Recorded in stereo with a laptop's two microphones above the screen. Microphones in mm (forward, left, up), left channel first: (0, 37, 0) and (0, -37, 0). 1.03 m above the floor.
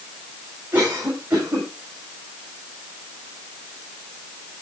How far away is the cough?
About 7 m.